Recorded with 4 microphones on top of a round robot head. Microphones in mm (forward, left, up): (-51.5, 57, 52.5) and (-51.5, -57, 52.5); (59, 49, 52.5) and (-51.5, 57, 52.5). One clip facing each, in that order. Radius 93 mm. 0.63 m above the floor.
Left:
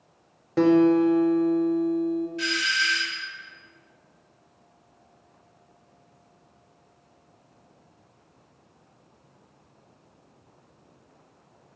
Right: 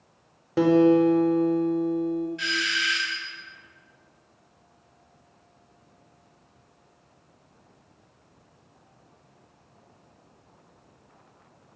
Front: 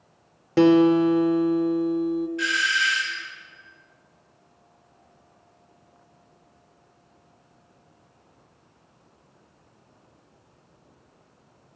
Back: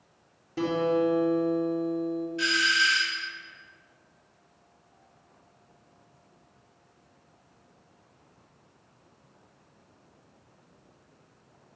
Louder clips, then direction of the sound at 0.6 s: Even, front 9 dB; 5° right.